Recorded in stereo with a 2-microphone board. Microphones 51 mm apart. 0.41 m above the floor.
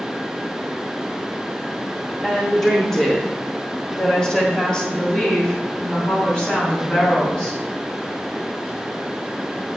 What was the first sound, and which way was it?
A woman speaking, 5° left (ahead or behind).